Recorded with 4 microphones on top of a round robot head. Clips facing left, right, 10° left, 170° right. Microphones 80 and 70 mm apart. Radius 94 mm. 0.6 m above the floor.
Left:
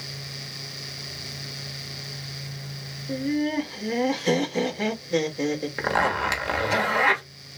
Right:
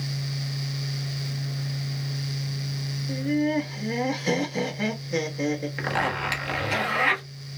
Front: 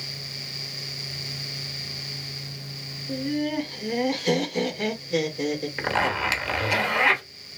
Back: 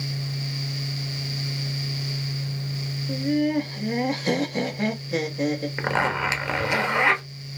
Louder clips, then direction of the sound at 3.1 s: Right 1 dB, back 4 dB; 175° right.